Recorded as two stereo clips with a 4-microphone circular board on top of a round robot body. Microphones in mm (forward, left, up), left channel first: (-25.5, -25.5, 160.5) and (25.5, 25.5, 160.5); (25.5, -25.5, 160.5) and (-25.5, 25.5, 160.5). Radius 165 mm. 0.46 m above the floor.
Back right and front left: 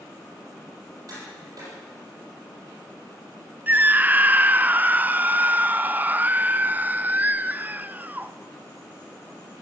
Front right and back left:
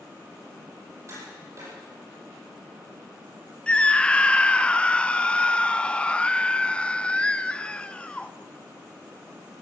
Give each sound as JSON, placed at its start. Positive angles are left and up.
{"t": 1.1, "sound": "tapping", "azimuth_deg": 85, "distance_m": 8.5}
{"t": 3.7, "sound": "a scream", "azimuth_deg": 15, "distance_m": 0.9}